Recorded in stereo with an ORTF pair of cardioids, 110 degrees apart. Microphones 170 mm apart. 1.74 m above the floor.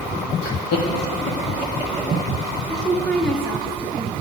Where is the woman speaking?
5° left, 1.2 m.